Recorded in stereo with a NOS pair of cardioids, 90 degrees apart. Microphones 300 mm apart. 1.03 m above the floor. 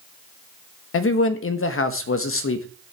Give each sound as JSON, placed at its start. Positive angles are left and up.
{"t": 0.9, "sound": "a man speaking", "azimuth_deg": 50, "distance_m": 1.2}